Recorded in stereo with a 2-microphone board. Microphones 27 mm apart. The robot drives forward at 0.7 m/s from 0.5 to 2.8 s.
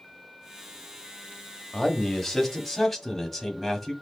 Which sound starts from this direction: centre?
A man speaking, at 1.7 s.